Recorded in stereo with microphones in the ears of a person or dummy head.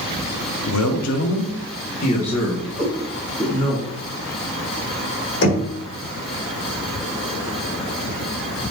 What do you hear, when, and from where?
0.7 s a man speaking: 80° left, 0.8 m; by 3.8 s 25° left (ahead or behind), 2.5 m
2.8 s a cat meowing: 5° left (ahead or behind), 1.7 m
5.4 s knocking: 70° left (ahead or behind), 1.9 m